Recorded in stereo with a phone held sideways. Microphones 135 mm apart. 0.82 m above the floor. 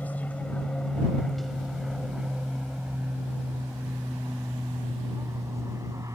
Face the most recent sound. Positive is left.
turn(degrees=-25)  # may be behind; listen again after turning